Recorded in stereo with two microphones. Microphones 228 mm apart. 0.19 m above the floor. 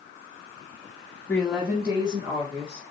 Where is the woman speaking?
10° left (ahead or behind), 1.0 m; by 2.8 s 30° right (ahead or behind), 2.5 m.